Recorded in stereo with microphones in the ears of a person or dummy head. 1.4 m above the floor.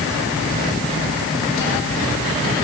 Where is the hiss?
No hiss in this recording.